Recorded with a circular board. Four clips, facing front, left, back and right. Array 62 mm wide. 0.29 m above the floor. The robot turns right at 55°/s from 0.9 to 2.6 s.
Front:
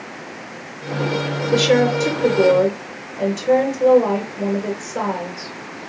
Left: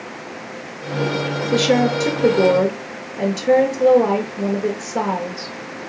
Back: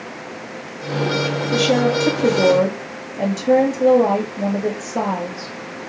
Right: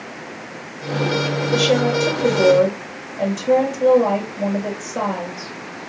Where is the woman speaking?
35° left, 5 m; by 5.9 s 95° left, 5 m.